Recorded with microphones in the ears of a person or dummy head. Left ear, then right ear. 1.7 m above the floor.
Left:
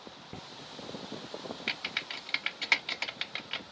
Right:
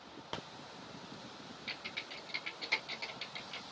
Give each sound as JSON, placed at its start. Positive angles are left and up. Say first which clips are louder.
{"t": 1.7, "sound": "typing on a keyboard", "louder": "left 8 dB", "side_deg": 50, "distance_m": 0.7}